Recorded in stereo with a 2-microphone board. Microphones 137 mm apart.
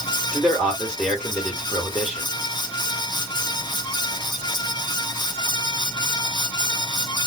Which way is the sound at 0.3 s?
5° left (ahead or behind).